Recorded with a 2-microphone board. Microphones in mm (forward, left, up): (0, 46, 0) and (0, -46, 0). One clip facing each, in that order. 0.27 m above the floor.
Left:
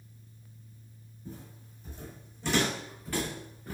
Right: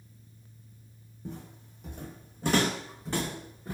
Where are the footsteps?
75° right (ahead or behind), 0.8 m; by 3.7 s 20° right (ahead or behind), 1.4 m.